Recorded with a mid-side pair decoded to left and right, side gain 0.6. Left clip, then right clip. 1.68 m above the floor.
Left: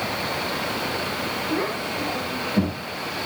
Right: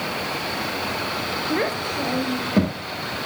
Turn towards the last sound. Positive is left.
turn(degrees=-50)